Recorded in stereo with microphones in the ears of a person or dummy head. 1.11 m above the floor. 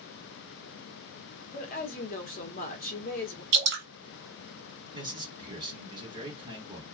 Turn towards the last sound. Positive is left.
turn(degrees=-25)  # may be behind; listen again after turning